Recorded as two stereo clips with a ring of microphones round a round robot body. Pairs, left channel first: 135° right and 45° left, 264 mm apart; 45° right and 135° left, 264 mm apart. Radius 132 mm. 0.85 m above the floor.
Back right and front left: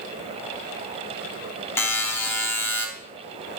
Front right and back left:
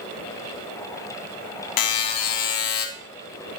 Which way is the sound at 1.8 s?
55° right.